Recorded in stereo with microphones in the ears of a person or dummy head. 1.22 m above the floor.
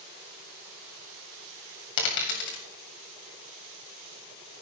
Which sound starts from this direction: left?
A dropped coin, at 2.0 s.